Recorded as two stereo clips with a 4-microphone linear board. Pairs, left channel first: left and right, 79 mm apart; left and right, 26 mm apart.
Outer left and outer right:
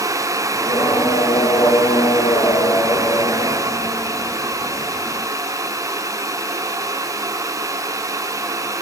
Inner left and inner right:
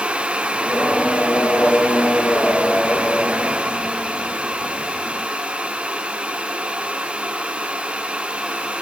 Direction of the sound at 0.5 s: 65° left (ahead or behind).